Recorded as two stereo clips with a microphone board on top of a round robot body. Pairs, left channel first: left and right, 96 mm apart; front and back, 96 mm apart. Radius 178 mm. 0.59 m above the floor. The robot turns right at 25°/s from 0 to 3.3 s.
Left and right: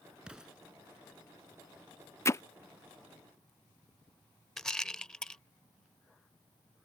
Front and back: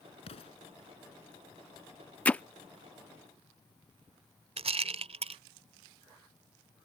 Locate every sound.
0.3 s an explosion: 10° right; by 0.6 s 5° right
2.2 s hammering: 60° left; by 2.4 s 65° left
4.6 s a rattle: 175° left